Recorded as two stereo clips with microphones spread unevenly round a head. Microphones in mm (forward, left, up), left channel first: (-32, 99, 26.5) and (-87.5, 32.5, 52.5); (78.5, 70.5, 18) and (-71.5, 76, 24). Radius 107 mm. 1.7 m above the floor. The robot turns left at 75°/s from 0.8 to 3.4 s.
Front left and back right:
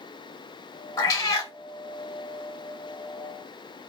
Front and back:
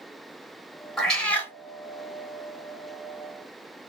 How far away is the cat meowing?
About 0.9 m.